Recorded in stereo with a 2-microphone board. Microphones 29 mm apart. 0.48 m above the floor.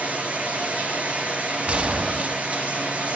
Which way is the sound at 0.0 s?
55° right (ahead or behind).